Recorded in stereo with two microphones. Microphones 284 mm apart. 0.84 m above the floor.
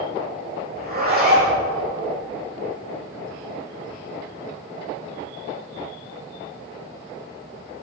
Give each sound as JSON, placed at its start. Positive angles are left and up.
{"t": 0.8, "sound": "a zipper", "side_deg": -35, "distance_m": 6.5}